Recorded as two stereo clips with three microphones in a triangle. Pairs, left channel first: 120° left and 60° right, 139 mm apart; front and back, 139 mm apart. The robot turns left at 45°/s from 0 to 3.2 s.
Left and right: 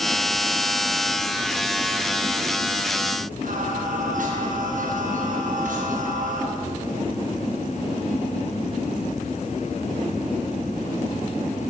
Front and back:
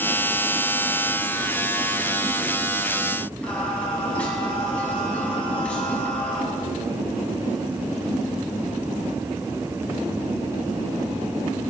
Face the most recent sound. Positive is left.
turn(degrees=-80)